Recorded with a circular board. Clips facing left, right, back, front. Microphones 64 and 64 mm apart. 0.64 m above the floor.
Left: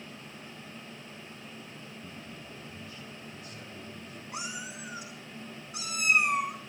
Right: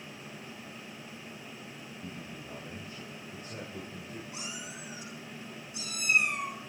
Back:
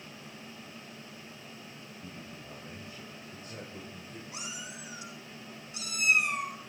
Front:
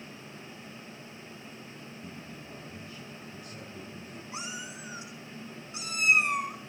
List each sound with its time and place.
2.0 s a man speaking: 135° right, 4 m
4.3 s a cat meowing: 65° left, 5 m